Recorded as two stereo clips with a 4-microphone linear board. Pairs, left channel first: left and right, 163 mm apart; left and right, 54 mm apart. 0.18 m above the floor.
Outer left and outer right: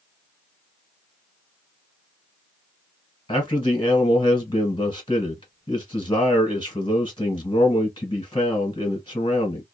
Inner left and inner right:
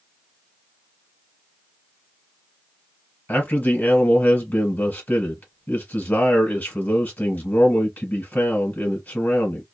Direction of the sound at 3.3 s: 30° left (ahead or behind).